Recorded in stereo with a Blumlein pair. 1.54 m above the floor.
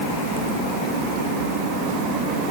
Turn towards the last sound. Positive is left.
No sound to turn to.